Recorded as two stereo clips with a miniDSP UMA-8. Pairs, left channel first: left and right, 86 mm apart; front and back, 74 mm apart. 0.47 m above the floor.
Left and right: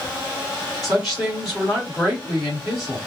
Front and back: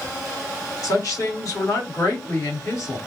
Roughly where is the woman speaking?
Ahead.